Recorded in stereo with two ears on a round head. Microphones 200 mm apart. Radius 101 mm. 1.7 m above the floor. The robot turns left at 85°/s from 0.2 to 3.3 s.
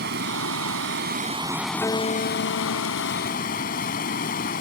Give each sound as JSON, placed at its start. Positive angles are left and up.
{"t": 0.0, "sound": "running water", "azimuth_deg": -55}
{"t": 1.8, "sound": "a guitar", "azimuth_deg": 170}